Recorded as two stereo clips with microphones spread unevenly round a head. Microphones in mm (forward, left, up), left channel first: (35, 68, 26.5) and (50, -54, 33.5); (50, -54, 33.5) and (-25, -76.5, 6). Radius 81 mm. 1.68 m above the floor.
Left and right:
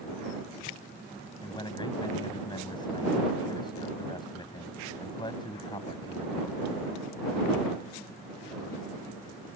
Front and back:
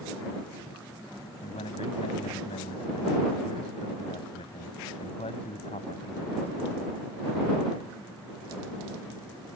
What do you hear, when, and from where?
1.4 s a man speaking: 45° left